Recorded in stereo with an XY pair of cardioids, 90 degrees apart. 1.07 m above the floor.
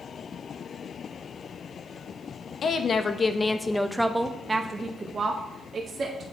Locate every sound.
2.6 s a woman speaking: 55° left, 1.0 m; by 6.2 s 60° right, 1.7 m